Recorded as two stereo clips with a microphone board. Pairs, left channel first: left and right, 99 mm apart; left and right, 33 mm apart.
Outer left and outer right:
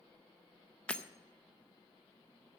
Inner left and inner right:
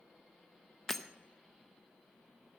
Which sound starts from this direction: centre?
Breaking glass, at 0.9 s.